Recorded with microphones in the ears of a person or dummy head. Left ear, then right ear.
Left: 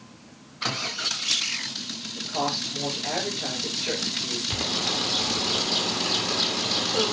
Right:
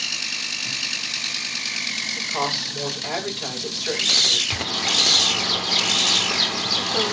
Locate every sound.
2.2 s a woman speaking: 25° right (ahead or behind), 8 m
4.5 s a bird: 25° right (ahead or behind), 2.5 m